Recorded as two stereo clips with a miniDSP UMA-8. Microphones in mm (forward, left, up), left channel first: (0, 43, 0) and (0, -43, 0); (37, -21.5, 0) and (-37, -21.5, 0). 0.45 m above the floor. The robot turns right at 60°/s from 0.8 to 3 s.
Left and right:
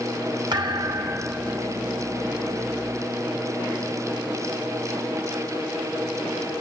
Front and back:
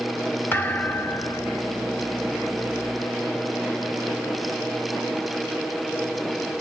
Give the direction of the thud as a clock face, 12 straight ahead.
2 o'clock.